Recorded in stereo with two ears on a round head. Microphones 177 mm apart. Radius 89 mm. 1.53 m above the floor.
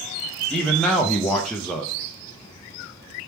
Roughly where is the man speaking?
Centre.